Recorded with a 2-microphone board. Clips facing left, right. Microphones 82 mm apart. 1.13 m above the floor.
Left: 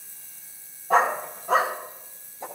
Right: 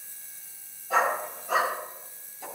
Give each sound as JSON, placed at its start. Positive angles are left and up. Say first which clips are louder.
{"t": 0.9, "sound": "a dog barking", "louder": "left 4 dB", "side_deg": 45, "distance_m": 4.0}